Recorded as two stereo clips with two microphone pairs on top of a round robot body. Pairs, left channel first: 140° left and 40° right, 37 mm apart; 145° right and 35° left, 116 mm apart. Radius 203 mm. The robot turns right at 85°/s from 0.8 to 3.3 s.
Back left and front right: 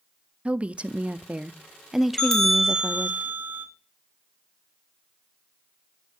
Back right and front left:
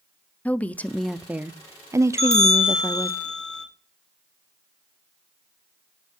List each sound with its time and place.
0.5 s a woman speaking: 65° right, 0.9 m; by 3.2 s 140° left, 0.9 m
2.2 s a bell: 155° right, 3 m; by 3.6 s 60° right, 3 m